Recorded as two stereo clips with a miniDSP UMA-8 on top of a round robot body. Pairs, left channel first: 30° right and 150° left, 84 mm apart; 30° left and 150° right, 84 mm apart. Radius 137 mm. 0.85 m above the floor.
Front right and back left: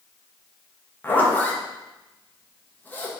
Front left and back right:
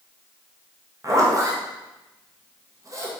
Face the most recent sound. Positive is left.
turn(degrees=-100)